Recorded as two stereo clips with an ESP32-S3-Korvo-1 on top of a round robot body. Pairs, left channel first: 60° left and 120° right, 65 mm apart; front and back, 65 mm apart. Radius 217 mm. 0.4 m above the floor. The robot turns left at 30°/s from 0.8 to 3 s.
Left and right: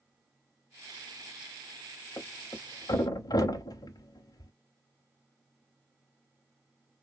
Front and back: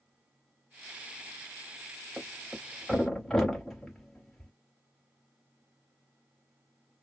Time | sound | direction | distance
2.2 | a thud | 105° left | 0.6 m